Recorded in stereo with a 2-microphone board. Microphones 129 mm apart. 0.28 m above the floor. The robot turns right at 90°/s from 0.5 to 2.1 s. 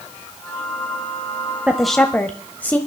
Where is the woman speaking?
15° right, 1.0 m; by 2.8 s 20° left, 1.0 m.